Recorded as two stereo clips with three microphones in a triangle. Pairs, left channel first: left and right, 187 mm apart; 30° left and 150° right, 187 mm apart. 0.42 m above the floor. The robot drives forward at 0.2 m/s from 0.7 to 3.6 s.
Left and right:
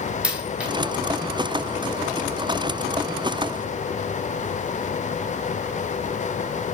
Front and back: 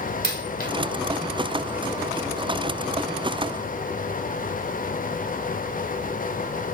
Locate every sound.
0.2 s a dropped coin: 5° right, 1.0 m